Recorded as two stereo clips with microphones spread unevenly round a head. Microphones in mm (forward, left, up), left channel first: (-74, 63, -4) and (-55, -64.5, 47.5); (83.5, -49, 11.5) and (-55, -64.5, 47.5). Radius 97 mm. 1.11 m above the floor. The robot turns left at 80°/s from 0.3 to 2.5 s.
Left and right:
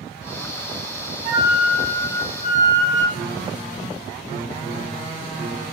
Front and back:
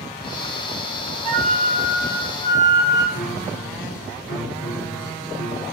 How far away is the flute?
About 2 m.